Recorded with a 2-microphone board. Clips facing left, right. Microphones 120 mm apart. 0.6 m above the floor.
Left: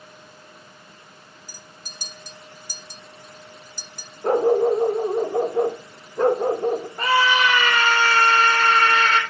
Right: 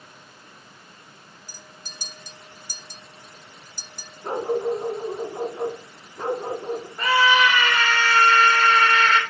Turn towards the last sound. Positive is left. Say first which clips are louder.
# right 2 dB
turn(degrees=40)  # may be behind; listen again after turning